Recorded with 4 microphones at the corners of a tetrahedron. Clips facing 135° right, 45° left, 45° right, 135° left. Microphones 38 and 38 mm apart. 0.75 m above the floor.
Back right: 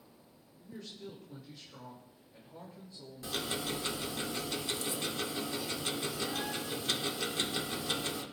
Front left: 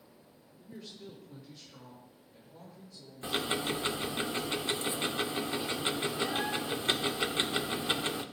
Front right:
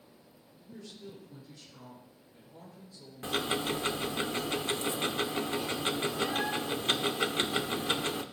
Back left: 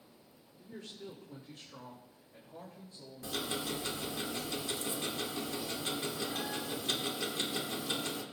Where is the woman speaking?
120° left, 2.5 m; by 4.2 s 175° left, 4.5 m.